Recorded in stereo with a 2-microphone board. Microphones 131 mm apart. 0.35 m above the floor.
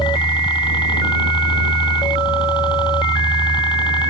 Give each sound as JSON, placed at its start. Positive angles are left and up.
{"t": 0.0, "sound": "a helicopter", "side_deg": 35}